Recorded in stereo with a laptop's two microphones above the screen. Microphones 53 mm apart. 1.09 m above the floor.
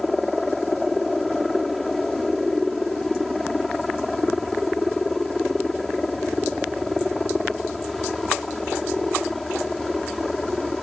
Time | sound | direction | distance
0.0 | a helicopter | centre (ahead or behind) | ?